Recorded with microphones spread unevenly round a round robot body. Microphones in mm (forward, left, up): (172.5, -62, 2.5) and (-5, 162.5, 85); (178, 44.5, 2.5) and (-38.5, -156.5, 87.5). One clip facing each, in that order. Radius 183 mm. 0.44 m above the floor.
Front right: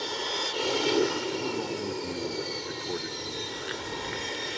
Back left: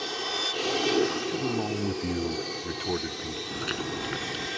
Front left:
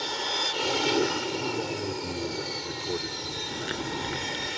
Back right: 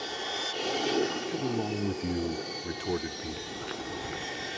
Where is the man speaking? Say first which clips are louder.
Back left 2 dB, even; 160° left.